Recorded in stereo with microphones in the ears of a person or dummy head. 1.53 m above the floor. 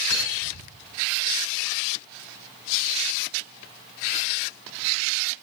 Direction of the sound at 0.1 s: 80° left.